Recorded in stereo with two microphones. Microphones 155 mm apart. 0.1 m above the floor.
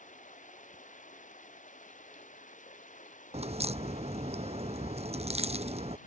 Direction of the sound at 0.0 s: 60° left (ahead or behind).